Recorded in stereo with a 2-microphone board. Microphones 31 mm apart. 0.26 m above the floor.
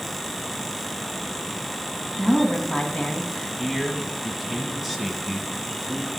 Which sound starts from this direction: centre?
A man speaking, at 3.6 s.